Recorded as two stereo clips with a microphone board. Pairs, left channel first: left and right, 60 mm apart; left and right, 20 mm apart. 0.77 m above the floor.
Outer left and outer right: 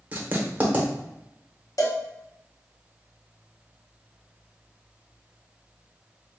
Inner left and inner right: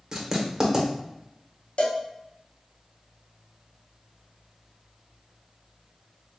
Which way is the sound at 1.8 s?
70° left (ahead or behind).